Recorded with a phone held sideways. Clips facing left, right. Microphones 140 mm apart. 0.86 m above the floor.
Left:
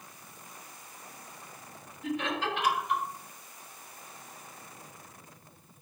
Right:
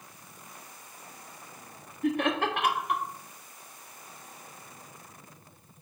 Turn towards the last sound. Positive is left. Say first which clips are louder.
# right 5 dB
turn(degrees=-55)  # may be behind; listen again after turning